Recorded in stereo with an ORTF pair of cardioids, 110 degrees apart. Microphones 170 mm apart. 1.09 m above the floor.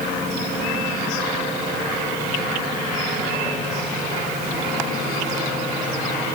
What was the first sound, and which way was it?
Only background noise.